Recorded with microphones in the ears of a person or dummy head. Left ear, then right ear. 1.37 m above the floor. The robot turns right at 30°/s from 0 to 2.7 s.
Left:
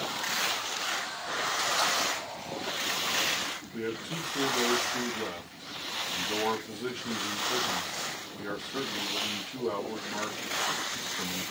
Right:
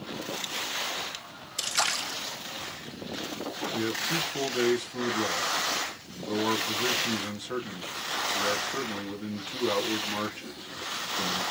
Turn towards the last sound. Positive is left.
turn(degrees=-45)  # may be behind; listen again after turning